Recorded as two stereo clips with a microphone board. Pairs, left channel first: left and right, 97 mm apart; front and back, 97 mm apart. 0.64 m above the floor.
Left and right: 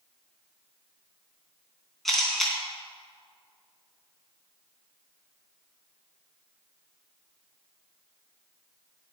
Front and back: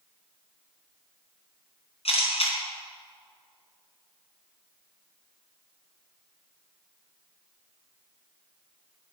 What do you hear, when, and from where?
2.0 s a camera shutter: straight ahead, 3.5 m